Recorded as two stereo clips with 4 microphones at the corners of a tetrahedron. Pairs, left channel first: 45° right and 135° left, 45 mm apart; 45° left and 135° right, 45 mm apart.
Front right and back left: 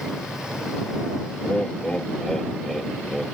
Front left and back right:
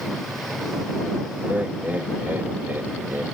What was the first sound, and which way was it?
Laughter, 100° right.